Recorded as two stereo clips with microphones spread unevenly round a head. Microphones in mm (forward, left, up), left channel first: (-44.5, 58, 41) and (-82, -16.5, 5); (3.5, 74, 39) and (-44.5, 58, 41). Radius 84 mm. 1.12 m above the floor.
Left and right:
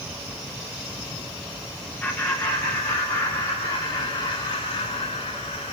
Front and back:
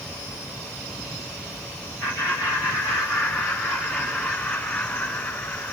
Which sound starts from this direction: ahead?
Laughter, at 2.0 s.